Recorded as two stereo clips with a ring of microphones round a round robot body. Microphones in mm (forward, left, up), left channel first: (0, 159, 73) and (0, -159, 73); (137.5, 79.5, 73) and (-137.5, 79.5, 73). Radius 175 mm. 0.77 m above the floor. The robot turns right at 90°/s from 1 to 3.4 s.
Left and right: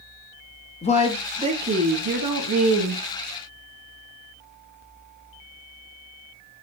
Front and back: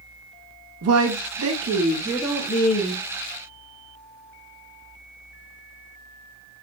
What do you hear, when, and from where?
0.8 s a woman speaking: 160° left, 1.0 m; by 3.0 s 20° right, 1.0 m